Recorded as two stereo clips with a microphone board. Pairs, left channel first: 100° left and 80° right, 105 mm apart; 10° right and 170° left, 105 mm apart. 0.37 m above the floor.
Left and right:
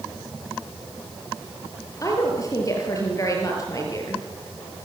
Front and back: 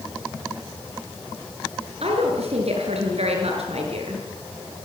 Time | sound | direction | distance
2.0 | a woman speaking | 155° left | 6.5 m